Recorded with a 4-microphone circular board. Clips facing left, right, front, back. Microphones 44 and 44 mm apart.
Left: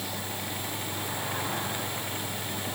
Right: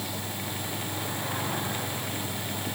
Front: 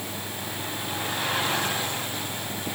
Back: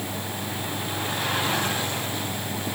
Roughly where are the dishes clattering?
I don't hear dishes clattering.